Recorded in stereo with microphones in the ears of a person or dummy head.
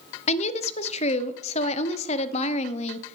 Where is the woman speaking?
35° left (ahead or behind), 0.6 m.